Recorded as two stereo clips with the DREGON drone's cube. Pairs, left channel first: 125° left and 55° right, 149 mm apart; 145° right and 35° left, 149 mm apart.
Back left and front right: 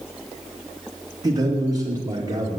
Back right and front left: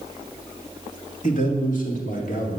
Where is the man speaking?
120° right, 3 m.